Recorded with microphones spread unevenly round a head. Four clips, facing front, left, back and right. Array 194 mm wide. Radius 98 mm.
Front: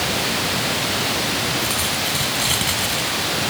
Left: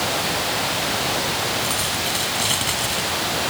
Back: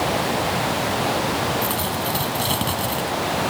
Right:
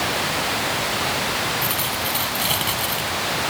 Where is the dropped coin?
170° right.